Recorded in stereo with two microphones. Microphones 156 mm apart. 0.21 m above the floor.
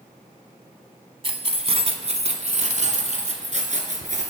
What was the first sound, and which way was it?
Keys jangling, 40° right (ahead or behind).